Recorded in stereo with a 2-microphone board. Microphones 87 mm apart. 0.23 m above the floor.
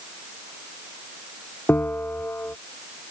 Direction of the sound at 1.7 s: 25° left (ahead or behind).